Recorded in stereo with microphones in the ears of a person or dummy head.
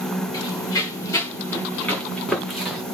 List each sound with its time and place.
0.3 s running footsteps: 25° left (ahead or behind), 5.5 m; by 2.8 s centre (ahead or behind), 5 m